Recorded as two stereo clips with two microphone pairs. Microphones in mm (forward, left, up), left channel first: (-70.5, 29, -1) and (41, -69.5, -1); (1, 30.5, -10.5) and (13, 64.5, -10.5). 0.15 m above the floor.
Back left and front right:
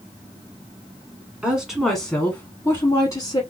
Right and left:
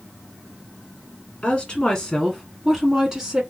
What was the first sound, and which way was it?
A woman speaking, 115° right.